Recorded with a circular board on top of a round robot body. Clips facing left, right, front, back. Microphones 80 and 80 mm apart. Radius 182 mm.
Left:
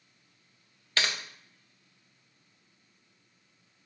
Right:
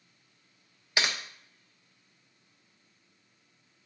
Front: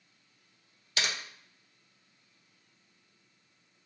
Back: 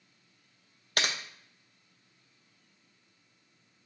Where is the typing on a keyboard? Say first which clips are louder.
Right 1 dB, back 2 dB; 165° right, 0.6 m.